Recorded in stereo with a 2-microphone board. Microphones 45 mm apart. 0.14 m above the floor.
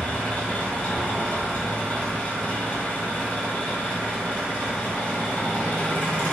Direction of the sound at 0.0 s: 35° left (ahead or behind).